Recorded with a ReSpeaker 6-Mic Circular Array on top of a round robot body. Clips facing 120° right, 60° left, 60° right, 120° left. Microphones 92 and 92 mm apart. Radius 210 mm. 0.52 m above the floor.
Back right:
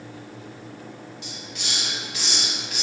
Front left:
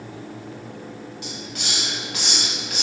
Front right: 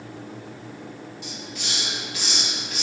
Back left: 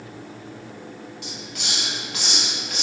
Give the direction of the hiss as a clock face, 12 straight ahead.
9 o'clock.